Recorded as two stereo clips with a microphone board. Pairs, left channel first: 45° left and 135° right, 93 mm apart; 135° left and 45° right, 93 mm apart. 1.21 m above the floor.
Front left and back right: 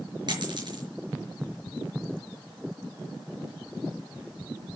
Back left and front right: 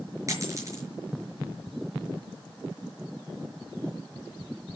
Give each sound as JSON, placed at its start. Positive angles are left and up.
{"t": 0.3, "sound": "a dropped coin", "azimuth_deg": -100, "distance_m": 5.0}